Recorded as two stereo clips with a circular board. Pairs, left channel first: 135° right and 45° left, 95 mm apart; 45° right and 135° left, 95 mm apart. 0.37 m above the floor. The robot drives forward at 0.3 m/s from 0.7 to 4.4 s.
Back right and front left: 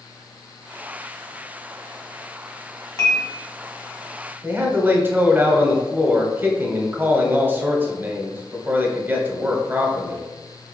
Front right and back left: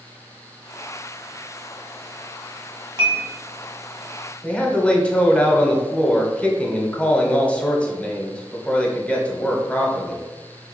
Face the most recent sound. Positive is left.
turn(degrees=10)